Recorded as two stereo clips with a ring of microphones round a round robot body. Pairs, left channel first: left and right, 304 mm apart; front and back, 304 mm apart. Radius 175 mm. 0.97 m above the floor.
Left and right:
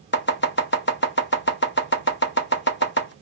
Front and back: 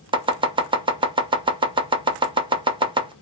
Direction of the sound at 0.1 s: 115° left.